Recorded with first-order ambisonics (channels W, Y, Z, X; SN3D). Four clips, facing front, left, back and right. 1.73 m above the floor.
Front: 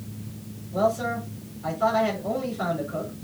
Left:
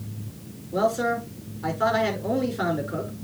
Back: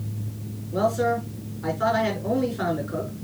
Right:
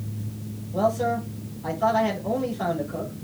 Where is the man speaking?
120° left, 4.5 m.